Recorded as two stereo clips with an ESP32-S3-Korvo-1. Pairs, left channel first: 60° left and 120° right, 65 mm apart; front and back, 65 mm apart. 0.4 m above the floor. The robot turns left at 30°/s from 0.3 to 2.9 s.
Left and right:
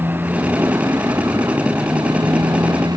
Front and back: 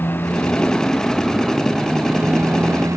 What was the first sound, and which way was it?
A motorcycle, 60° right.